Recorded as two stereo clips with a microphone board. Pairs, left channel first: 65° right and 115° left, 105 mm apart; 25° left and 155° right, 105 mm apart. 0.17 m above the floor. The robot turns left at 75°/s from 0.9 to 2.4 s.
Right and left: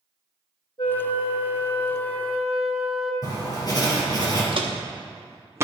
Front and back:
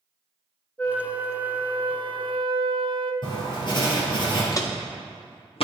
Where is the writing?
15° right, 3 m.